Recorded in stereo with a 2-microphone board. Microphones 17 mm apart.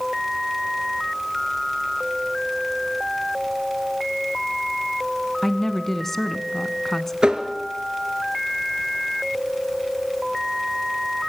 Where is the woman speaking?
20° left (ahead or behind), 1.2 m.